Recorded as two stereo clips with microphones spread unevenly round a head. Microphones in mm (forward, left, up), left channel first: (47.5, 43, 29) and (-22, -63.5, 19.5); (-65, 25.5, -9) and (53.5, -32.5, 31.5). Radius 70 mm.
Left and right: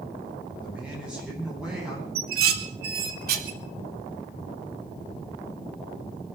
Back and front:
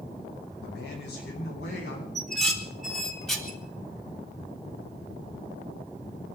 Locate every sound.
0.6 s a man speaking: 155° left, 9.5 m; by 2.0 s 150° left, 11.5 m
2.1 s dishes clattering: 115° right, 2.5 m